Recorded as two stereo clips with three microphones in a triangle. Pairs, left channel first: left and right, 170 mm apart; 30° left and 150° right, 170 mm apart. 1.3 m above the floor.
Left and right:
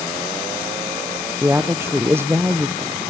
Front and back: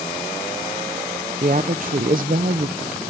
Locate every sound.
1.4 s a woman speaking: 165° right, 0.5 m